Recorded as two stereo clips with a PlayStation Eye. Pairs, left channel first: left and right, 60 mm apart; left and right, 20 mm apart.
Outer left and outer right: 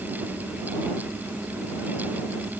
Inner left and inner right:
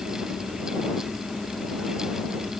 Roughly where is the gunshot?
I don't hear a gunshot.